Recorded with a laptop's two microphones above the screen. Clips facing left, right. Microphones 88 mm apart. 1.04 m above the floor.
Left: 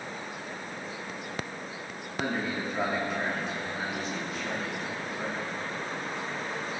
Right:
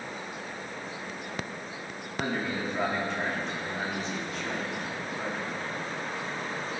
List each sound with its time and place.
2.2 s a man speaking: 5° left (ahead or behind), 3 m